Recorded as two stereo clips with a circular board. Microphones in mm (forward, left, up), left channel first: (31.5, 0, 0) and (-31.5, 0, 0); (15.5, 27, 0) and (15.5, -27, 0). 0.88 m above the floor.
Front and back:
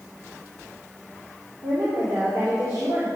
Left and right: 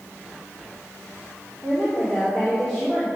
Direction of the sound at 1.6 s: 160° left.